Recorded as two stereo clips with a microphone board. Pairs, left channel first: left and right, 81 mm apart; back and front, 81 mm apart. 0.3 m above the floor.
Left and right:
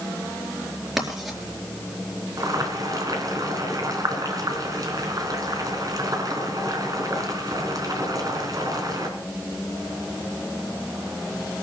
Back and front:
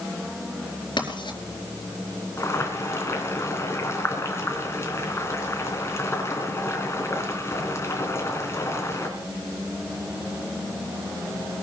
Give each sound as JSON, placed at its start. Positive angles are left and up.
{"t": 1.0, "sound": "writing", "azimuth_deg": -175, "distance_m": 4.0}
{"t": 2.4, "sound": "boiling", "azimuth_deg": -125, "distance_m": 3.5}